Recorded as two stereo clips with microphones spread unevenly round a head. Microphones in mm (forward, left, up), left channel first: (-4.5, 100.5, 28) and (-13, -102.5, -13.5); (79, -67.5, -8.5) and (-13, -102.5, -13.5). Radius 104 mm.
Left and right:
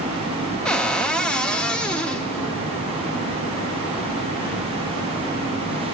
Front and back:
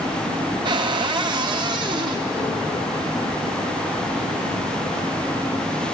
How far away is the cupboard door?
About 0.5 m.